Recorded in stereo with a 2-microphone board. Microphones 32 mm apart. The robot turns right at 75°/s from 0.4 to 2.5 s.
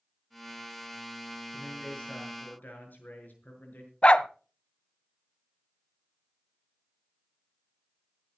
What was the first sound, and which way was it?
A man speaking, 5° left.